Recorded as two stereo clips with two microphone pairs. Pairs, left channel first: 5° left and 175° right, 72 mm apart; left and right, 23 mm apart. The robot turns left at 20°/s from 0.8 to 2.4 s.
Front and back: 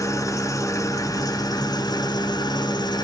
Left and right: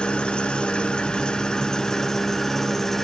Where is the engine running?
45° left, 1.0 m; by 3.0 s 15° left, 1.0 m.